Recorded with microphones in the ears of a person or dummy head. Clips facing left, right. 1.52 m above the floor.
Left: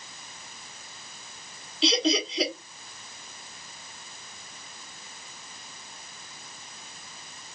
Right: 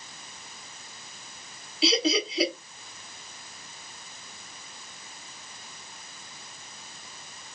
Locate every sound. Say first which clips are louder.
1.8 s laughter: even; 5° right (ahead or behind), 1.3 m